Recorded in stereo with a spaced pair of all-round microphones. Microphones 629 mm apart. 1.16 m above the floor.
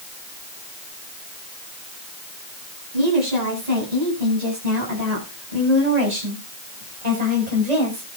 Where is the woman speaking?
85° right, 9.5 m; by 8.1 s 75° right (ahead or behind), 5.5 m.